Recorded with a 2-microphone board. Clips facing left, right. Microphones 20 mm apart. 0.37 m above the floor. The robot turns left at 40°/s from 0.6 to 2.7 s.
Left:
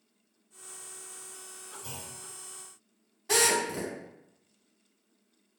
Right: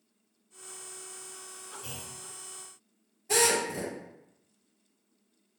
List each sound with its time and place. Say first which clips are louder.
1.8 s a clunk: even; 70° right (ahead or behind), 1.1 m; by 2.2 s 55° right (ahead or behind), 1.1 m
3.3 s a drill: even; 65° left (ahead or behind), 1.0 m